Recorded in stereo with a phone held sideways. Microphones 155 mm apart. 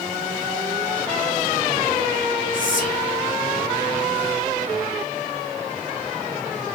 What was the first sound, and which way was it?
Whispering, 60° left (ahead or behind).